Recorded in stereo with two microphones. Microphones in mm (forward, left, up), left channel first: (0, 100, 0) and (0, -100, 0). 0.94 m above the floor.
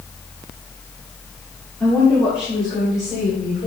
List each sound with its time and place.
1.8 s a woman speaking: 15° left (ahead or behind), 2.5 m; by 3.7 s 40° left (ahead or behind), 3.5 m